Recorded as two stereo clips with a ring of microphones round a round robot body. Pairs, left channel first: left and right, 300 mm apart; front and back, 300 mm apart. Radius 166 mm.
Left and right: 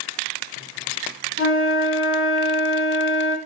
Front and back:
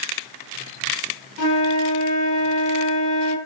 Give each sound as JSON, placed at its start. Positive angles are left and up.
{"t": 1.4, "sound": "a flute", "azimuth_deg": 45, "distance_m": 5.5}